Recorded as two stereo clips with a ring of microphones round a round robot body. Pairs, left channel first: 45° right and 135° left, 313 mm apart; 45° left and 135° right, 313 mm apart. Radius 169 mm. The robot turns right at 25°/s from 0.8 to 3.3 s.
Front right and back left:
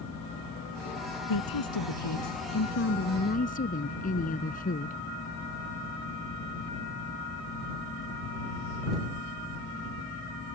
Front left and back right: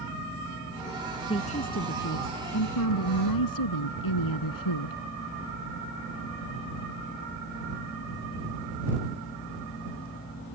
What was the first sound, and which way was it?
A woman speaking, 30° right.